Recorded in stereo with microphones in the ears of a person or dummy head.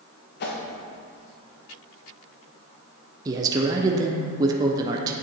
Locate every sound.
0.4 s a whoosh: 50° left (ahead or behind), 1.2 m
3.2 s a man speaking: 20° right (ahead or behind), 0.5 m